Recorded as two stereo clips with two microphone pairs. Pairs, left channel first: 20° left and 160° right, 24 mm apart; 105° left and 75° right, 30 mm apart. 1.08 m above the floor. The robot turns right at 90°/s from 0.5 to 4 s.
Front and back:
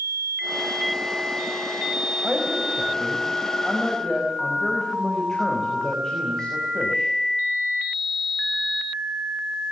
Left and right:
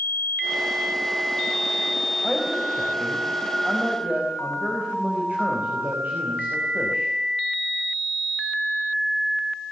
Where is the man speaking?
155° left, 5 m; by 7.1 s 50° right, 5 m.